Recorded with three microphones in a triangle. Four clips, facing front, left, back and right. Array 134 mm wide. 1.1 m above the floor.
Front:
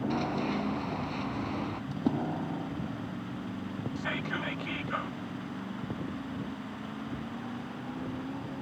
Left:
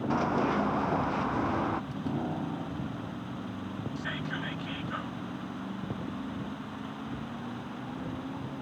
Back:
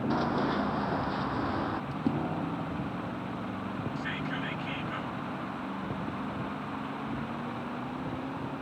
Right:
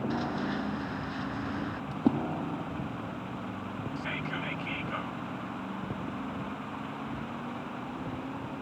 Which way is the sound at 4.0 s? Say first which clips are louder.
Right 1 dB, even; 15° right.